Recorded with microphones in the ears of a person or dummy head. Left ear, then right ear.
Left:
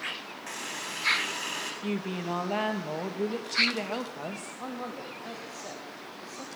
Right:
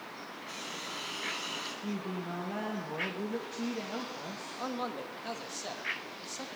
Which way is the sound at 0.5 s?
35° left (ahead or behind).